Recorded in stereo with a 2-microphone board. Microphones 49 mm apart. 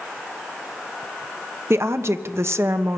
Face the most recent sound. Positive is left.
turn(degrees=-60)  # may be behind; listen again after turning